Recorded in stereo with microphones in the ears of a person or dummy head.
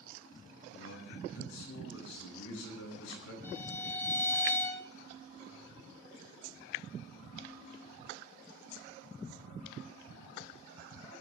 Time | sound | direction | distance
0.7 | a man speaking | 85° left | 9.5 m
3.4 | a violin | 20° left (ahead or behind) | 3 m